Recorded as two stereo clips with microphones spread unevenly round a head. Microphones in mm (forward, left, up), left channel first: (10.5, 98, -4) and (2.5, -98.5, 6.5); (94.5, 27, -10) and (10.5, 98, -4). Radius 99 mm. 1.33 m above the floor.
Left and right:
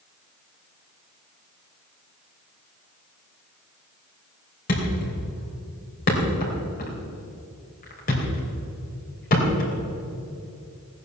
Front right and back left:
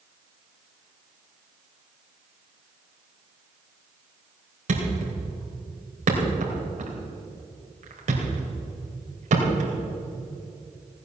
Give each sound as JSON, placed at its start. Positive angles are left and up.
{"t": 4.7, "sound": "a thud", "azimuth_deg": 140, "distance_m": 3.5}